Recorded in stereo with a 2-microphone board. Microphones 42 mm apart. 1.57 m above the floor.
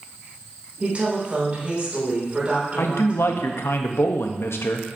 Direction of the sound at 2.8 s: 75° left (ahead or behind).